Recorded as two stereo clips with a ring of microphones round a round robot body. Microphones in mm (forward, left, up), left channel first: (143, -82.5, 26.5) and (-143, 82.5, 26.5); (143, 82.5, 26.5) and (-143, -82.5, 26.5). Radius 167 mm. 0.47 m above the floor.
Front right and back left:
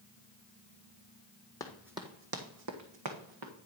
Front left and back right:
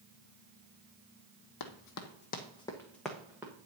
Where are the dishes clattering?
I don't hear dishes clattering.